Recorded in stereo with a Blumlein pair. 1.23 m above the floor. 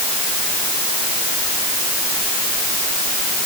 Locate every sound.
Only background noise.